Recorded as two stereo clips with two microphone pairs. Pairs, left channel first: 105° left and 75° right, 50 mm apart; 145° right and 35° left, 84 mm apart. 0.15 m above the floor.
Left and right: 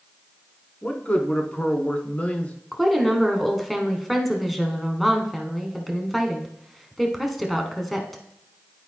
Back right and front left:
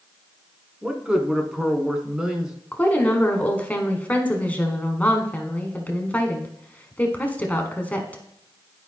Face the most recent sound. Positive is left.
turn(degrees=-165)